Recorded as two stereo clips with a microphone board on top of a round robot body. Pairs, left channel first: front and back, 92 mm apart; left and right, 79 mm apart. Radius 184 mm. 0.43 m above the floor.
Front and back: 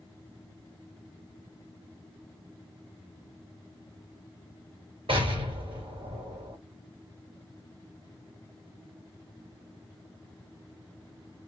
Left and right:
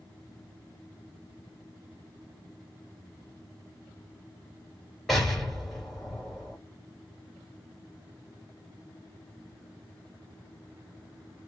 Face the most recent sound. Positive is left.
turn(degrees=175)